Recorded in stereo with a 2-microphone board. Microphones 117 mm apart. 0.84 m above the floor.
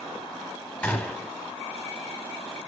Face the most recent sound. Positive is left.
turn(degrees=15)  # may be behind; listen again after turning